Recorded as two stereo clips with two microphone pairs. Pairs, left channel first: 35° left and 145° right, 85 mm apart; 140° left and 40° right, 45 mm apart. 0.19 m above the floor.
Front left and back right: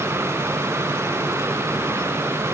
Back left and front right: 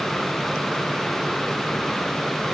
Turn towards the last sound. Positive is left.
No sound to turn to.